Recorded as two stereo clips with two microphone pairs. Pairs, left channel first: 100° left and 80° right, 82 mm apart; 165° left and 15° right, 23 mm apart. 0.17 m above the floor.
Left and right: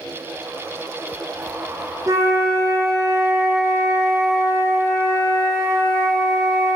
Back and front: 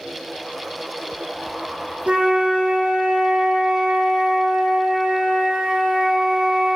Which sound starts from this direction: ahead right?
A flute, at 2.1 s.